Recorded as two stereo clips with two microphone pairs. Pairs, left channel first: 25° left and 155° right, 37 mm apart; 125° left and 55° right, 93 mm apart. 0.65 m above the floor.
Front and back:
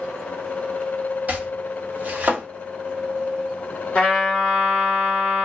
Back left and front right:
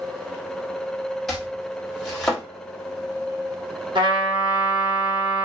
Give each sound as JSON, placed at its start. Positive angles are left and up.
{"t": 1.3, "sound": "chopping", "azimuth_deg": -150, "distance_m": 1.4}
{"t": 4.0, "sound": "a trumpet", "azimuth_deg": -30, "distance_m": 1.3}